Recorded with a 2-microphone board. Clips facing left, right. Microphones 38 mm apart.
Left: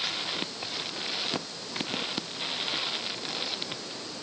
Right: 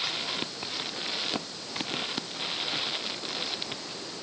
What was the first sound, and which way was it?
Only background noise.